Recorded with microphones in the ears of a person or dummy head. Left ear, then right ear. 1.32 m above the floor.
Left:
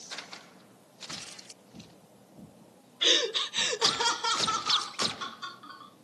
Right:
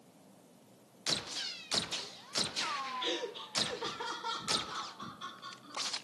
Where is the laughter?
25° left (ahead or behind), 0.5 m; by 5.9 s 55° left (ahead or behind), 2 m.